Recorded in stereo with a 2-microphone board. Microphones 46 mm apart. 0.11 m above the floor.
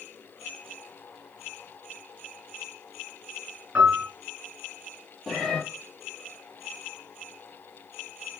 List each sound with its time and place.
3.8 s a piano: 25° right (ahead or behind), 1.1 m
5.3 s a cat meowing: 10° left (ahead or behind), 0.7 m